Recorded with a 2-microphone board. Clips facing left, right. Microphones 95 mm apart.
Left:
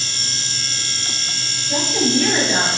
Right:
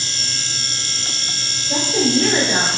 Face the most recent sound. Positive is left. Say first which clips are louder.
# right 1 dB
turn(degrees=-25)  # may be behind; listen again after turning